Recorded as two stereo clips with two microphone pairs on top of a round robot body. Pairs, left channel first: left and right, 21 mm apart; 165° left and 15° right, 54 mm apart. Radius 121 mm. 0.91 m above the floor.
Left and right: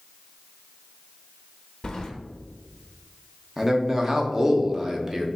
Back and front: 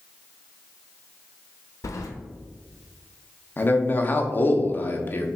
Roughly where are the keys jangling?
Behind left.